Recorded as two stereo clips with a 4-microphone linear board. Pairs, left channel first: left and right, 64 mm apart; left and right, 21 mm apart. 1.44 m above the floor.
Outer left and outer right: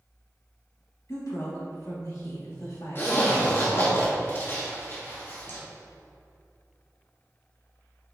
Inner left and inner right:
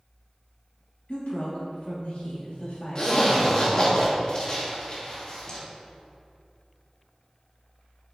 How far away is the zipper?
About 1.8 m.